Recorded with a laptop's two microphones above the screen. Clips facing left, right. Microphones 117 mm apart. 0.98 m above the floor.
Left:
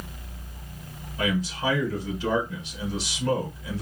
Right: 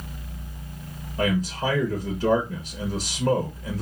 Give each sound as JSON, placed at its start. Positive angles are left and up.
{"t": 1.2, "sound": "a man speaking", "side_deg": -40, "distance_m": 1.1}